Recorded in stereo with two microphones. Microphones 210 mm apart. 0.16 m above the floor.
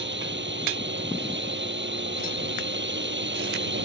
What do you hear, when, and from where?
0.0 s a drone: 60° right (ahead or behind)